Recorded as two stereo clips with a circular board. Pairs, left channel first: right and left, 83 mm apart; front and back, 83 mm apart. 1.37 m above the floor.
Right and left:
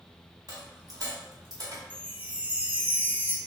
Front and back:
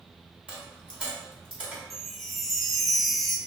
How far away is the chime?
About 0.5 m.